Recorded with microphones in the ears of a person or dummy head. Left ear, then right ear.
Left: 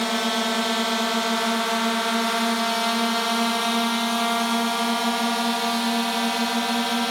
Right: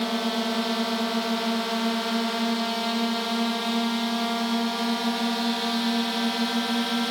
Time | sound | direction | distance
0.0 | a drone | 45° left (ahead or behind) | ?